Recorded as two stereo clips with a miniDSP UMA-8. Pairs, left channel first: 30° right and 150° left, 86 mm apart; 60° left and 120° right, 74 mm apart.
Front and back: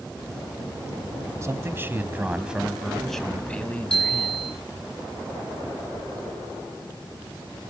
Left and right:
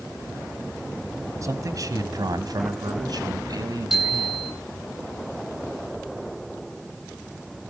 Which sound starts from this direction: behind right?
A man speaking, at 1.4 s.